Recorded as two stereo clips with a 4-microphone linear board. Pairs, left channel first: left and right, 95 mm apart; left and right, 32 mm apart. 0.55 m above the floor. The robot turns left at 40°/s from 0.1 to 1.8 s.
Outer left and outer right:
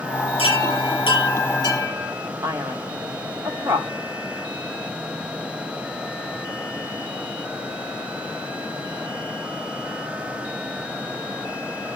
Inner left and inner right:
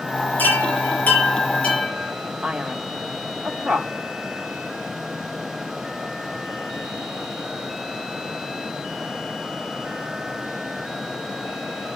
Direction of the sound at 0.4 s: 95° left.